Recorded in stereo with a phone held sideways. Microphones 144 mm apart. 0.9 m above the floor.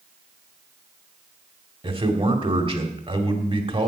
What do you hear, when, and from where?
1.8 s a man speaking: 40° right (ahead or behind), 2.0 m